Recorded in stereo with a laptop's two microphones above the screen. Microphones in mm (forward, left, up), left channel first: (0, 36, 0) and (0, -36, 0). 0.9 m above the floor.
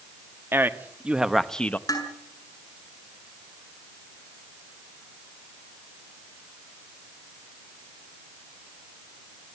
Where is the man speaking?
30° right (ahead or behind), 2 m; by 1.8 s 25° left (ahead or behind), 1.2 m.